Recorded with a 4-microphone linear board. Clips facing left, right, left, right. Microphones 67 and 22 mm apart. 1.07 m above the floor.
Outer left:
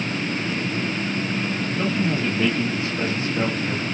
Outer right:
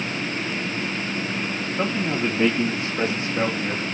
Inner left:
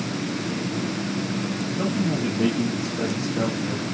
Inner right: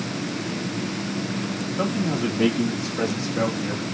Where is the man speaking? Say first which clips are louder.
Even, inner right 1 dB; 40° right (ahead or behind), 3 m; by 3.8 s 15° right (ahead or behind), 2.5 m.